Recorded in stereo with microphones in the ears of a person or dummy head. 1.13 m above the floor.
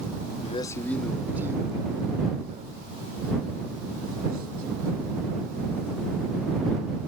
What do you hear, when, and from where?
0.4 s a man speaking: 30° left (ahead or behind); by 7.1 s 55° right (ahead or behind)